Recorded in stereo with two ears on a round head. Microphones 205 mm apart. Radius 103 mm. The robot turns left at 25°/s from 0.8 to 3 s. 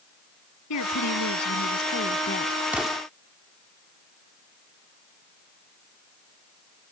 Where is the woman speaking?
80° left; by 2.5 s 40° left.